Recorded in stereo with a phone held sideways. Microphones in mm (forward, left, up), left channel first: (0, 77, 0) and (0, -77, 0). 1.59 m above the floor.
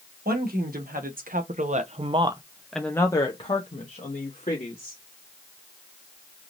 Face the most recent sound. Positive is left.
turn(degrees=55)  # may be behind; listen again after turning